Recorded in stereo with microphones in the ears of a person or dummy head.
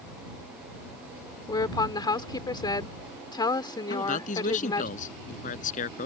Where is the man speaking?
50° left (ahead or behind).